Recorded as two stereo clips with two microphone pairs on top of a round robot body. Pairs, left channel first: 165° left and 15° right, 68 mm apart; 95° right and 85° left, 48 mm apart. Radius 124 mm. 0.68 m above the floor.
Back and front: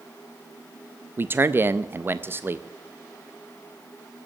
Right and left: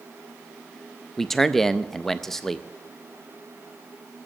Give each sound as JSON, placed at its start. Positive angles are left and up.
{"t": 1.2, "sound": "a man speaking", "azimuth_deg": 0, "distance_m": 0.6}